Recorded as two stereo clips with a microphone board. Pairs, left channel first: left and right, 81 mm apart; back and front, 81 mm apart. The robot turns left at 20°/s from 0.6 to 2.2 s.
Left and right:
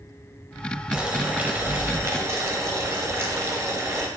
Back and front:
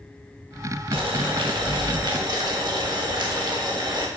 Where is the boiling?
10° right, 0.6 m; by 4.1 s 35° right, 0.6 m.